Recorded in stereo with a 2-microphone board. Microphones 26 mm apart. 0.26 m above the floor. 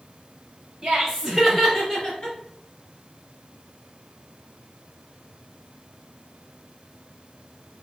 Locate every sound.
0.8 s laughter: 25° right (ahead or behind), 1.1 m; by 2.4 s 40° left (ahead or behind), 1.4 m